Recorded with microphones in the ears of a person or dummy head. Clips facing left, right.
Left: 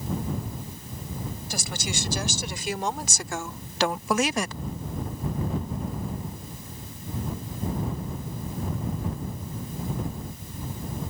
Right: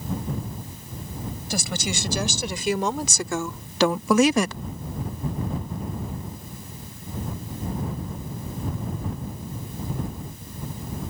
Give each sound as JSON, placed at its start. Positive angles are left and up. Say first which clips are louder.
{"t": 1.5, "sound": "a woman speaking", "louder": "right 7 dB", "side_deg": -70}